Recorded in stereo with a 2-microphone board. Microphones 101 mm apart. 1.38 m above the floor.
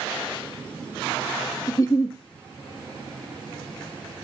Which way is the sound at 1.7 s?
30° left (ahead or behind).